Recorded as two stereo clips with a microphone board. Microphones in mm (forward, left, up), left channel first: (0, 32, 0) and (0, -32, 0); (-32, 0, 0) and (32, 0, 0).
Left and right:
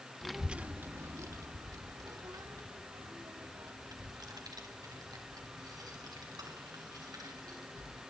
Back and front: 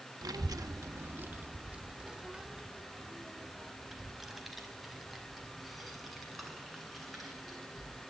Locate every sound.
0.2 s a child speaking: 5° left, 1.0 m; by 8.0 s 90° right, 9.5 m